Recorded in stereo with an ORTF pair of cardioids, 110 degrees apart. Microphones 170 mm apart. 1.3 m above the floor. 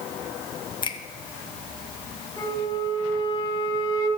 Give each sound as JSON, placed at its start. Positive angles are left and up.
{"t": 0.8, "sound": "a finger snap", "azimuth_deg": 30, "distance_m": 1.1}
{"t": 2.4, "sound": "a flute", "azimuth_deg": 30, "distance_m": 3.0}